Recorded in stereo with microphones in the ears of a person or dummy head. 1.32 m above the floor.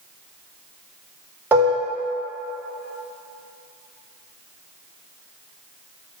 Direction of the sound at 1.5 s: 10° right (ahead or behind).